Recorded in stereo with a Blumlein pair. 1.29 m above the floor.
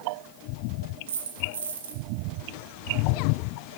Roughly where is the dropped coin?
Ahead right.